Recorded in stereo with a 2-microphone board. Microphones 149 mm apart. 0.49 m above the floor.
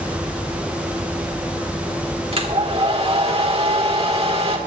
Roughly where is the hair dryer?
Right.